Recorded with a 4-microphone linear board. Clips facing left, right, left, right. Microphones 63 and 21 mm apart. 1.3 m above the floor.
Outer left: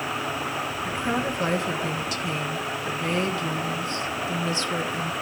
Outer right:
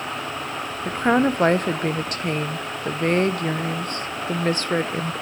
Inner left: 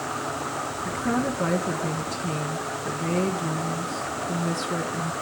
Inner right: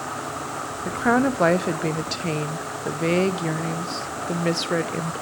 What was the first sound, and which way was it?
A woman speaking, 50° right (ahead or behind).